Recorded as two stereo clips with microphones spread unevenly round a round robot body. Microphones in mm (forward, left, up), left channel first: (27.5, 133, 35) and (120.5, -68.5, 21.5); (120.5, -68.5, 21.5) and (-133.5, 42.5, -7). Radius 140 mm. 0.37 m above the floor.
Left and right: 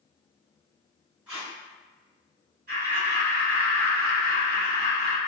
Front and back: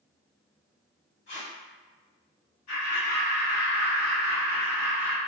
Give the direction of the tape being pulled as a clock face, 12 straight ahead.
12 o'clock.